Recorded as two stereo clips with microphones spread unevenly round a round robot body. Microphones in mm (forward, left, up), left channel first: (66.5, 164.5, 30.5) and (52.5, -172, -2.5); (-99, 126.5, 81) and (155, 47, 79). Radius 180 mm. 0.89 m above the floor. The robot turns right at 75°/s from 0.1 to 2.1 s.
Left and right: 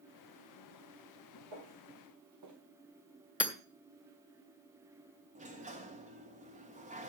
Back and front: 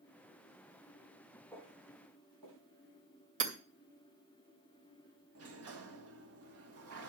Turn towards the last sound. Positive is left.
turn(degrees=-30)